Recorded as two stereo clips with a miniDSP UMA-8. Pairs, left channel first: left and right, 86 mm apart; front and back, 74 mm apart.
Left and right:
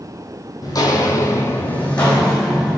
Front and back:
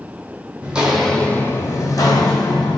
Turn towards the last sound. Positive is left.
turn(degrees=0)